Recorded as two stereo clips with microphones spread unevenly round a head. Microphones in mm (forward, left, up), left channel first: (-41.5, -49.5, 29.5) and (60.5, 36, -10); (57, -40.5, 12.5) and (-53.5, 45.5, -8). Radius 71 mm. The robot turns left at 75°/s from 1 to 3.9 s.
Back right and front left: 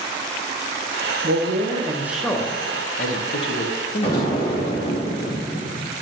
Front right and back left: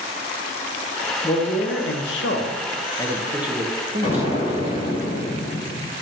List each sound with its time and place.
1.2 s a man speaking: 25° left, 0.8 m; by 4.7 s 175° right, 0.8 m
4.0 s an explosion: 100° right, 3 m